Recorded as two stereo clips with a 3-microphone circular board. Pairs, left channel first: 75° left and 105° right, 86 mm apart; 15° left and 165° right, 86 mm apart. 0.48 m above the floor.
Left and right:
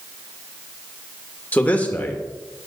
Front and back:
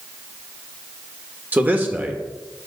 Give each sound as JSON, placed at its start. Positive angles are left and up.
{"t": 1.5, "sound": "a man speaking", "azimuth_deg": 135, "distance_m": 1.1}